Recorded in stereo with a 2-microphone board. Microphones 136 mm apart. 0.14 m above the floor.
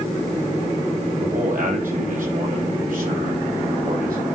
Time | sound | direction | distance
1.2 | a man speaking | 70° right (ahead or behind) | 3.5 m